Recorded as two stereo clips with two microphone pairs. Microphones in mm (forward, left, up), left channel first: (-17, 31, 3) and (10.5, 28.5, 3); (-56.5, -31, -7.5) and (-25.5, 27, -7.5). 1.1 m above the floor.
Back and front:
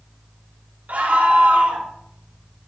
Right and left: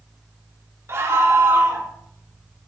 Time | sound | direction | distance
0.9 | a scream | 15° left | 2.5 m